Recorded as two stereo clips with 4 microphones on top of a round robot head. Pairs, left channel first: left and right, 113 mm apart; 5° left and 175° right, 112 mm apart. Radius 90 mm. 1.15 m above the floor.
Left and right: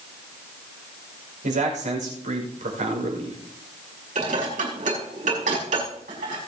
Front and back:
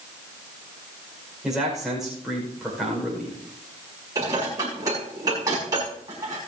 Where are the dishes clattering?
110° right, 5.5 m.